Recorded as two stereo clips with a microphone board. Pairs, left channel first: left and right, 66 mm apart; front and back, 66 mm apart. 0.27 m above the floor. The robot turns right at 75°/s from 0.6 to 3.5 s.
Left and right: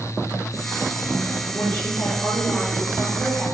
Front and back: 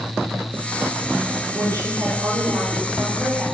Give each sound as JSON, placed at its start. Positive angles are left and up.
{"t": 1.5, "sound": "a woman speaking", "azimuth_deg": 130, "distance_m": 7.0}